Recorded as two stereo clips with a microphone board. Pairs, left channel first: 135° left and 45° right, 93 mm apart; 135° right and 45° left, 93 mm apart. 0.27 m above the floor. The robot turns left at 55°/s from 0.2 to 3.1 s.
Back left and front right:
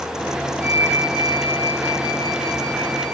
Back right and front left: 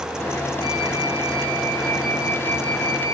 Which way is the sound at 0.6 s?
90° right.